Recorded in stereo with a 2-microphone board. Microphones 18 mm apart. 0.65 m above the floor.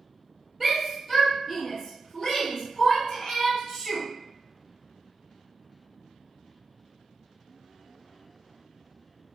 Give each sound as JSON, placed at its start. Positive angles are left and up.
{"t": 0.6, "sound": "a shout", "side_deg": -15, "distance_m": 1.3}